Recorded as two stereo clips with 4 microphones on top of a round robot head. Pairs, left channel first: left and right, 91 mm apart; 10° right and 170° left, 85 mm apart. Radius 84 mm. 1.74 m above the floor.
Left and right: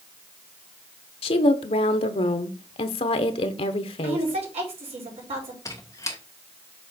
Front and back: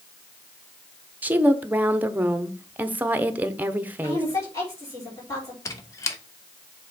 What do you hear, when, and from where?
1.2 s a woman speaking: 100° left, 0.9 m
4.0 s a woman speaking: 75° right, 5 m
5.7 s a squeak: 25° left, 0.7 m